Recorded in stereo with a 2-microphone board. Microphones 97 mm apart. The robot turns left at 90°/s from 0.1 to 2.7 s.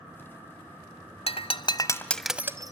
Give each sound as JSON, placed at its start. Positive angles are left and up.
{"t": 1.3, "sound": "breaking glass", "side_deg": 75, "distance_m": 1.1}